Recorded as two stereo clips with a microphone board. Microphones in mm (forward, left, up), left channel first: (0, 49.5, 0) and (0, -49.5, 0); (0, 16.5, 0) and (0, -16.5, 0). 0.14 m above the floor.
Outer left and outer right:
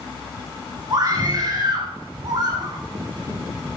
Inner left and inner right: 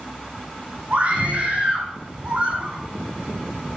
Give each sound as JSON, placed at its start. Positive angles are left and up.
{"t": 0.9, "sound": "a scream", "side_deg": -50, "distance_m": 7.5}